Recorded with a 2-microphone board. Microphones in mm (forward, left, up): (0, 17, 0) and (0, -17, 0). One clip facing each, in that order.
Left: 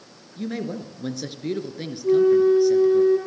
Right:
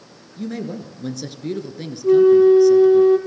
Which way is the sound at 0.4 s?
10° left (ahead or behind).